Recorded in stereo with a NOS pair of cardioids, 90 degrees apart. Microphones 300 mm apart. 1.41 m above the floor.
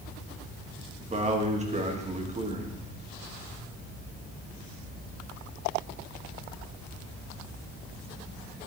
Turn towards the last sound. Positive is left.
turn(degrees=-25)